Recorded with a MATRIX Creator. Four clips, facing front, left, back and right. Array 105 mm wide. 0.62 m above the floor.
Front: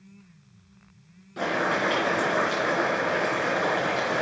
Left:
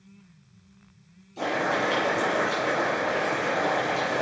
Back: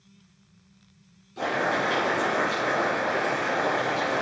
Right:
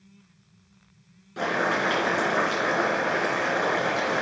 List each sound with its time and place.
1.4 s boiling: 60° right, 3.5 m